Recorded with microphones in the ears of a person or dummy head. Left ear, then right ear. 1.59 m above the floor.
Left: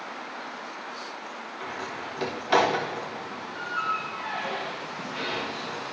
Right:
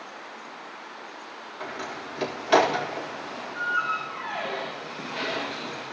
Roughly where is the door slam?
Centre.